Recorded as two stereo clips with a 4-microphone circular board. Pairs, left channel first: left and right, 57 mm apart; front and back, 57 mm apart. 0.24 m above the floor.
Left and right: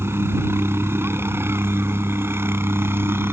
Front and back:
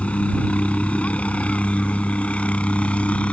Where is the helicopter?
60° right.